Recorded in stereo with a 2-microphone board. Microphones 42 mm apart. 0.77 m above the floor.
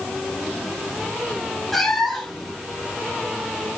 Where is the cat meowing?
5° left (ahead or behind), 2.5 m.